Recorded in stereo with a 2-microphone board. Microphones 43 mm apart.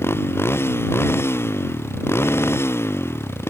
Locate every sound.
0.0 s a motorcycle: 70° left (ahead or behind); by 3.5 s 75° left (ahead or behind)